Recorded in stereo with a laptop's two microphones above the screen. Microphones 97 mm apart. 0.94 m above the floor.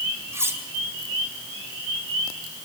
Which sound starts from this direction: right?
Cutlery clinking, at 0.3 s.